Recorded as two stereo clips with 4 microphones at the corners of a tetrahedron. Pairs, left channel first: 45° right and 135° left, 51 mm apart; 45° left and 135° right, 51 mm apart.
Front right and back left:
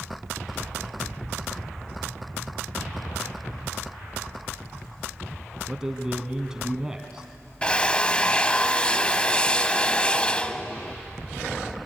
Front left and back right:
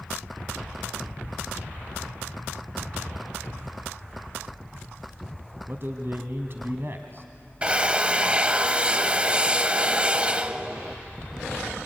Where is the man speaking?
150° right, 1.8 m.